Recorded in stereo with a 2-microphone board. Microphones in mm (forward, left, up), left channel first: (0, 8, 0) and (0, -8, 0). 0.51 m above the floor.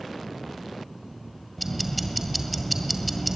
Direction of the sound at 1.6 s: Centre (ahead or behind).